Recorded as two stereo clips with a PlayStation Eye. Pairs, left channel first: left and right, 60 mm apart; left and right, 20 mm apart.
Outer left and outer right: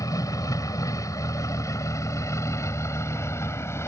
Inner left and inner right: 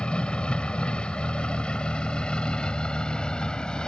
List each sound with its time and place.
0.0 s a vehicle: 85° left; by 3.9 s 50° left (ahead or behind)